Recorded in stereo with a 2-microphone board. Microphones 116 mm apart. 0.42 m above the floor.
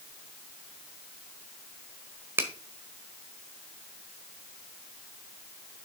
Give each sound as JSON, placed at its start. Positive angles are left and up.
{"t": 2.4, "sound": "a finger snap", "side_deg": -20, "distance_m": 1.4}